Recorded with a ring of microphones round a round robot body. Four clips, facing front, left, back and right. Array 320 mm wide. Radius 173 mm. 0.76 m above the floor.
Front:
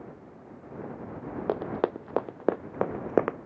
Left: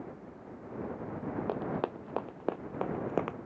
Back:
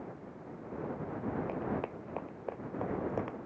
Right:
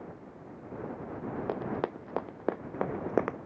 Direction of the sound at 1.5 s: 5° right.